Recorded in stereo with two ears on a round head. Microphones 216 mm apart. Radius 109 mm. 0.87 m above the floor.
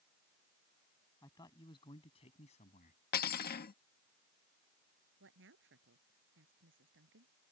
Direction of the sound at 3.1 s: 40° left (ahead or behind).